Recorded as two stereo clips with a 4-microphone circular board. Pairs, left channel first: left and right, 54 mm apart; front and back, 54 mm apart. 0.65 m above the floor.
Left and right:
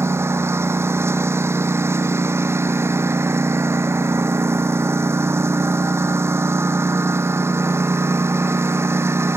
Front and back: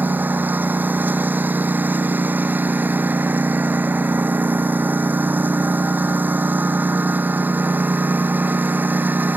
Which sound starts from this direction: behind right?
A lawn mower, at 0.0 s.